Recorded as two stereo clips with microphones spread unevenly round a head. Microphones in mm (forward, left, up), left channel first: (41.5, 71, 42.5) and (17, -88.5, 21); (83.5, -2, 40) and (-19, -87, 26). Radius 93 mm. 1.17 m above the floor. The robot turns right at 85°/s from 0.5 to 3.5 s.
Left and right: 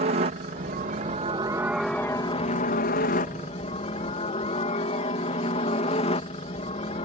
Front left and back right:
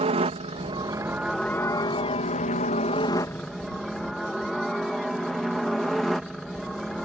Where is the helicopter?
125° right; by 7.0 s 130° left.